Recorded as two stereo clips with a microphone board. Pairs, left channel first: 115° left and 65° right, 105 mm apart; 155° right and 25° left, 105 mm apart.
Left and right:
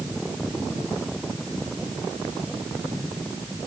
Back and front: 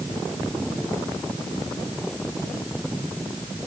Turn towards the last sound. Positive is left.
No sound to turn to.